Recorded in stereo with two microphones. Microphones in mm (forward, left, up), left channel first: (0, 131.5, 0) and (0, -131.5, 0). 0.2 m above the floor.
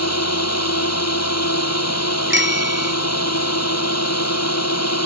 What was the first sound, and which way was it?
A drone, 70° left (ahead or behind).